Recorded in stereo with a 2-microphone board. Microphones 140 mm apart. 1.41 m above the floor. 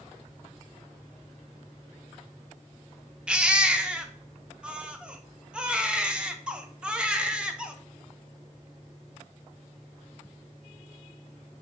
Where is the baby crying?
5° right (ahead or behind), 0.5 m.